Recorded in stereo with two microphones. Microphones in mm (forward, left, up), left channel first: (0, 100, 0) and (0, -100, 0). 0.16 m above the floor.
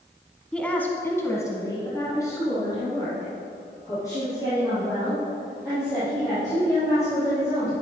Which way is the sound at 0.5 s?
5° left (ahead or behind).